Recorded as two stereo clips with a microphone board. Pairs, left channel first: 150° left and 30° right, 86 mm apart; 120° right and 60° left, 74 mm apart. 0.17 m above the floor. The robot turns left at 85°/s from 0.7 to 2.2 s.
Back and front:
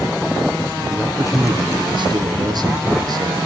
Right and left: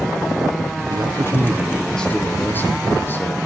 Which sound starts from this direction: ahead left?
A man speaking, at 0.9 s.